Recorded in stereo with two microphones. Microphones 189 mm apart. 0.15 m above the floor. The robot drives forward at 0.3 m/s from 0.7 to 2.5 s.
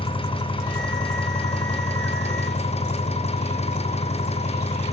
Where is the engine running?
30° left (ahead or behind), 3 m; by 4.9 s 35° left (ahead or behind), 2.5 m.